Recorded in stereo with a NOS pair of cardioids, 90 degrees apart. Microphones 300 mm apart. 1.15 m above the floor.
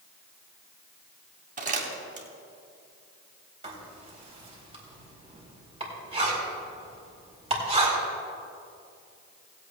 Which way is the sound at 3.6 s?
20° right.